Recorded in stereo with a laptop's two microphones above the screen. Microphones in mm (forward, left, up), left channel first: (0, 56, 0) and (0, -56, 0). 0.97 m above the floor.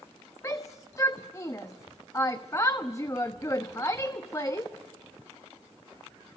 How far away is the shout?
About 1.0 m.